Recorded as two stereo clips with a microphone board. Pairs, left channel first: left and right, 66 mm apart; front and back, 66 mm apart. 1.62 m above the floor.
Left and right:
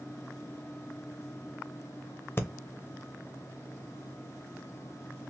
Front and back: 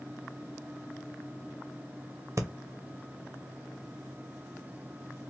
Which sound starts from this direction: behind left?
Breathing, at 2.4 s.